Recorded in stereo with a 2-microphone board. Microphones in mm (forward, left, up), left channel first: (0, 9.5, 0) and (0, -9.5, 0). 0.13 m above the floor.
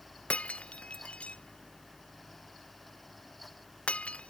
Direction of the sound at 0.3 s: 85° left.